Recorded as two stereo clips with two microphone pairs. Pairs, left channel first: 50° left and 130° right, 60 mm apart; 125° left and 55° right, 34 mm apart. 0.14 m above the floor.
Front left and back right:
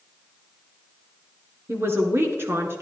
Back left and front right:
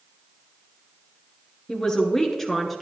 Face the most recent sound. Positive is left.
turn(degrees=-145)